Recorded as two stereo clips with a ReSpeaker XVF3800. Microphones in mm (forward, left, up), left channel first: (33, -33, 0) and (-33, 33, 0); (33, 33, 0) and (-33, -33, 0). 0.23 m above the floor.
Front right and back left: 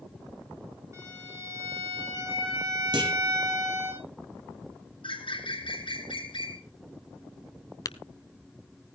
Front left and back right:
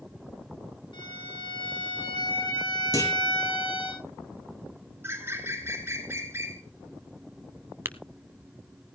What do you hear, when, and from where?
0.9 s a violin: 75° left, 8 m
2.9 s a clunk: 100° left, 4 m
5.0 s a bird: 70° right, 2.5 m
7.8 s tapping: 75° right, 0.8 m